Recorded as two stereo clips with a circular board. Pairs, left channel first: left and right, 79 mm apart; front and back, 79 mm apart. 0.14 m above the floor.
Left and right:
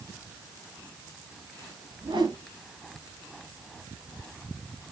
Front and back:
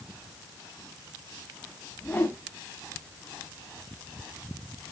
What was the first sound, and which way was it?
A whoosh, 65° right.